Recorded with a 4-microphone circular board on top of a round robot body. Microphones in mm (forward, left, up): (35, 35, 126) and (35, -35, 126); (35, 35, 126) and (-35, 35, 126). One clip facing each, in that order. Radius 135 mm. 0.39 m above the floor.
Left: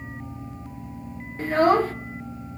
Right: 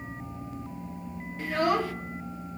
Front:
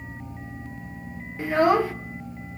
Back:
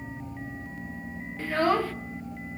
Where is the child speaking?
65° left, 0.7 m.